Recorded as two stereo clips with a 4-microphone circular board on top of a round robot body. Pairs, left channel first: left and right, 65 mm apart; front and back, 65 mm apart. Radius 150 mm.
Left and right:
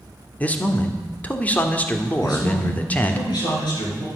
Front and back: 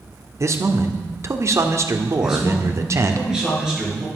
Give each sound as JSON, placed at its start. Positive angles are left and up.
{"t": 0.4, "sound": "a man speaking", "azimuth_deg": 150, "distance_m": 1.7}
{"t": 2.2, "sound": "a man speaking", "azimuth_deg": 100, "distance_m": 7.0}